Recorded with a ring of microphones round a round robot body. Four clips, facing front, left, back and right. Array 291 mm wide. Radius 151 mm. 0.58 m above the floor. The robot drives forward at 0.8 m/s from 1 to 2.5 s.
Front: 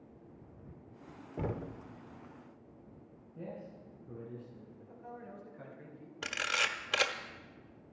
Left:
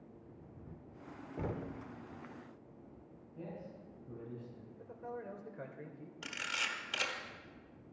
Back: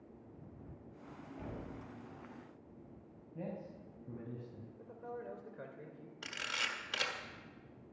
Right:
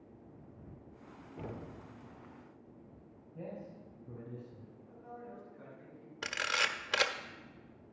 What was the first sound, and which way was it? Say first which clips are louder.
Knocking: left 4 dB, front 9 dB; 15° left.